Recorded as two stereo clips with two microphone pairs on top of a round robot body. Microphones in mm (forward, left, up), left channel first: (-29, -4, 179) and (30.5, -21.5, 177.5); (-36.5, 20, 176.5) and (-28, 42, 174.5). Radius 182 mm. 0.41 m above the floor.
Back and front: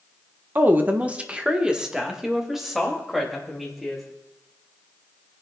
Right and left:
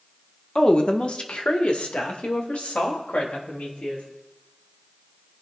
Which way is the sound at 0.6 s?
65° right.